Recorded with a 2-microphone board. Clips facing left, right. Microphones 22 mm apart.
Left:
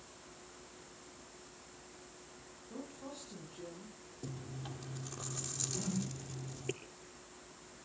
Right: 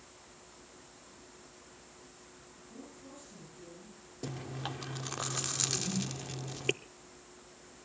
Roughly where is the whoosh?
Left.